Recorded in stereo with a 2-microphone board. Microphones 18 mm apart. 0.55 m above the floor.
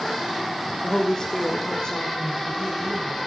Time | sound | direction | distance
0.8 | a woman speaking | 25° left (ahead or behind) | 1.2 m